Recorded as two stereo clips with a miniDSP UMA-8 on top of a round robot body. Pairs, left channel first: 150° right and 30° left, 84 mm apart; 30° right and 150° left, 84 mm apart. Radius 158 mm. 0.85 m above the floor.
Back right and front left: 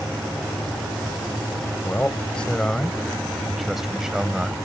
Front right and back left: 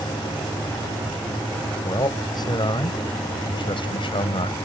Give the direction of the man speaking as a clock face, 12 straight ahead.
2 o'clock.